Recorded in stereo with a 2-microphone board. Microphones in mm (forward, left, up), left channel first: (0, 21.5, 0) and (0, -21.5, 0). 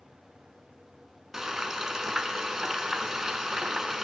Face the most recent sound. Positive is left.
turn(degrees=-10)  # may be behind; listen again after turning